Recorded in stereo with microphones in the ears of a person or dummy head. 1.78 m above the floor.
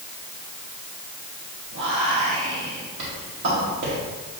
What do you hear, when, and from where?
1.7 s whispering: 60° right (ahead or behind), 1.2 m